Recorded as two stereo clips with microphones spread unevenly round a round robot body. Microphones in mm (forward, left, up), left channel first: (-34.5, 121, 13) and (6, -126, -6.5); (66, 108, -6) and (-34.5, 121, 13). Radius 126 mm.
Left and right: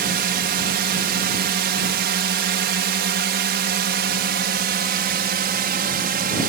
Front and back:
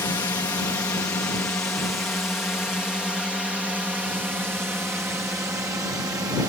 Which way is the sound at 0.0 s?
55° right.